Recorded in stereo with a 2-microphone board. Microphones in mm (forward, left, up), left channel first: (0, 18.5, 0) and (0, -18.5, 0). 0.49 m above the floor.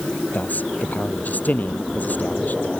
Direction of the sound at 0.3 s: 50° left (ahead or behind).